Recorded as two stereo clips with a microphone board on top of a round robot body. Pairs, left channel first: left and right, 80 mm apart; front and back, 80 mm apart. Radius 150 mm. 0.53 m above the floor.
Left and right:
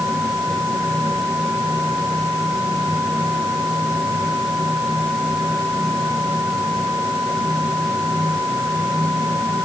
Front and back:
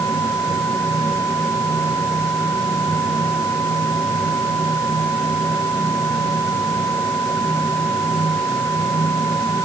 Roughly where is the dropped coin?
I don't hear a dropped coin.